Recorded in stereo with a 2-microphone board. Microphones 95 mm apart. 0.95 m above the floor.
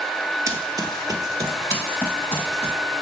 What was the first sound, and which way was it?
Running footsteps, 35° right (ahead or behind).